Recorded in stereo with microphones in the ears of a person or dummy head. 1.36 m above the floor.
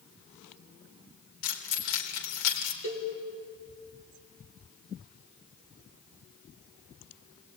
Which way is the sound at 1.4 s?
65° left (ahead or behind).